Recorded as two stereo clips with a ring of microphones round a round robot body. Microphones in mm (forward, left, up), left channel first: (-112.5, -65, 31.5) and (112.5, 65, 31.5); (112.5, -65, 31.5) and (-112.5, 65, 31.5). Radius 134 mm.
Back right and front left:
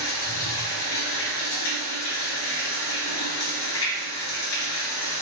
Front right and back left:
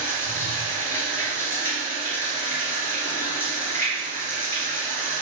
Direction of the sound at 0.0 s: 110° right.